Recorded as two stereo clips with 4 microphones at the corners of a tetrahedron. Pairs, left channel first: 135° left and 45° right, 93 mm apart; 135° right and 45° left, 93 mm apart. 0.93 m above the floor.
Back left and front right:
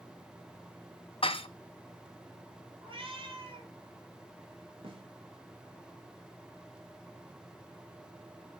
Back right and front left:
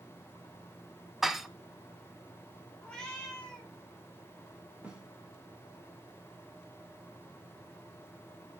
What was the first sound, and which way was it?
Dishes clattering, 130° left.